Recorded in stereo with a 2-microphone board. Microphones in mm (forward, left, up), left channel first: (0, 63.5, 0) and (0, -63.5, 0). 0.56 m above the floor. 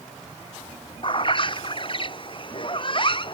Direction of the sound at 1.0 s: 40° left (ahead or behind).